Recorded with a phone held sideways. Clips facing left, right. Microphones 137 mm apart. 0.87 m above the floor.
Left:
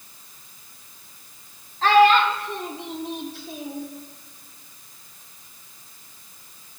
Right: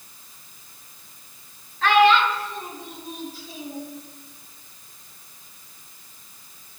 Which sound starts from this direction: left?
A child speaking, at 1.8 s.